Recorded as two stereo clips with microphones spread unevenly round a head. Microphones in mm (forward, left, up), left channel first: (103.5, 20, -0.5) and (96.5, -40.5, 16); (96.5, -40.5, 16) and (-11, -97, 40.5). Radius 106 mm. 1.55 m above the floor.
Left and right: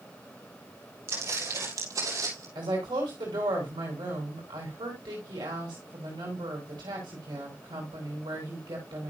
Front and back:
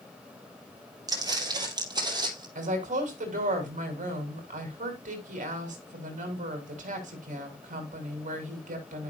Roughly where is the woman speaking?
Behind right.